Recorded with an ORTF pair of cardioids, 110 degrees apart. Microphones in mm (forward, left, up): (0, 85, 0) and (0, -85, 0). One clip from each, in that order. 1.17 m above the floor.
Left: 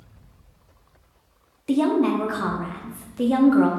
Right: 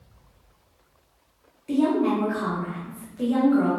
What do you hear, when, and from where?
1.7 s a woman speaking: 40° left, 0.6 m